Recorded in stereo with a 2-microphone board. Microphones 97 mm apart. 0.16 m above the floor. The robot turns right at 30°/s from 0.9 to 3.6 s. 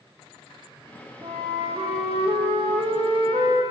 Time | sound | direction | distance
1.2 | a flute | 130° right | 2.0 m